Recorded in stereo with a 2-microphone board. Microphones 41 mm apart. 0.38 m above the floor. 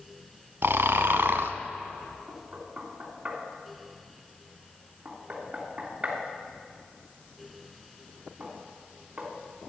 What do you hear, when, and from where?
0.6 s snoring: 80° right, 0.8 m
2.3 s knocking: 35° right (ahead or behind), 3 m